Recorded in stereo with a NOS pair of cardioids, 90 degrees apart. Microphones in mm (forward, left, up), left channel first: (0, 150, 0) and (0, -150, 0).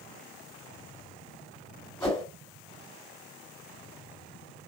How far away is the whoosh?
About 2 m.